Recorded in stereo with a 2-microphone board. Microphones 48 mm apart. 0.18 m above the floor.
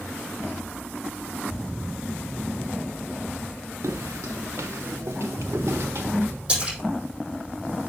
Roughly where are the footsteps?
Right.